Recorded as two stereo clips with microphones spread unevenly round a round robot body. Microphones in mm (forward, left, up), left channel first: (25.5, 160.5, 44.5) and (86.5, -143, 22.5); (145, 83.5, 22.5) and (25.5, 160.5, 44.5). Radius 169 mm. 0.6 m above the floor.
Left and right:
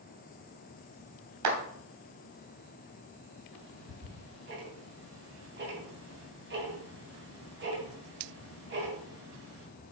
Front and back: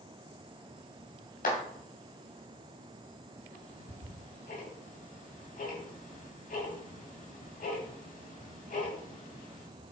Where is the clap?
55° right, 3 m.